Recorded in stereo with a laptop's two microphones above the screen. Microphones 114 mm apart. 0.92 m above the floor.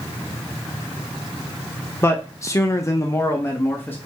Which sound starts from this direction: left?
A man speaking, at 2.0 s.